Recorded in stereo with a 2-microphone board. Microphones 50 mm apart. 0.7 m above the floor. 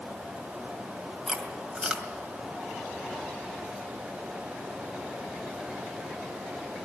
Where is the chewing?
15° right (ahead or behind), 2.5 m.